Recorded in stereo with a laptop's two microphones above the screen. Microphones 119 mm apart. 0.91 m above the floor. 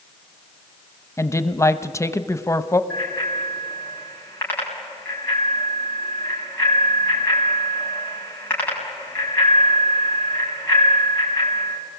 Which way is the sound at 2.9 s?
20° left (ahead or behind).